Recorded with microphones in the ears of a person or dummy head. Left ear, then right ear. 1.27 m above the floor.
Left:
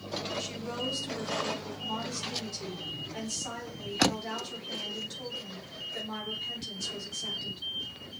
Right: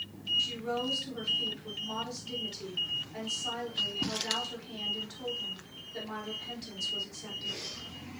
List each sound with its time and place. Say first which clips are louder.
0.4 s a woman speaking: right 3 dB; 5° left (ahead or behind), 3 m